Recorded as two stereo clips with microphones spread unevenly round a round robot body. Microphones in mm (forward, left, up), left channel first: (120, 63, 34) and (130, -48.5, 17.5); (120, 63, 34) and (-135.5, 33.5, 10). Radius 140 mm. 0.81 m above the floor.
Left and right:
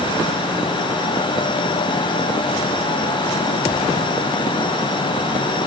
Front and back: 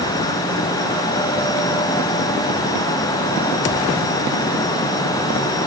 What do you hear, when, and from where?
Only background noise.